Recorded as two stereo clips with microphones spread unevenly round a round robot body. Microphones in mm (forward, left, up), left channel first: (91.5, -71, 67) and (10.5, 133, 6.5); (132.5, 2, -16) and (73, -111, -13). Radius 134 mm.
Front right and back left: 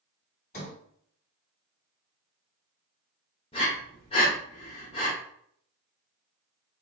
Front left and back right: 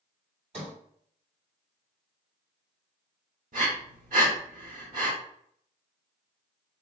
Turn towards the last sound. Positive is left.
turn(degrees=-140)